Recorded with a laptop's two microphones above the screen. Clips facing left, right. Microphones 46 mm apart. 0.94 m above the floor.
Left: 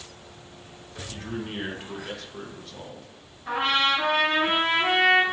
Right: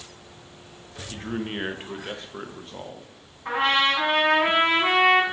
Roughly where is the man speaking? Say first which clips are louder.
Right 3 dB; right.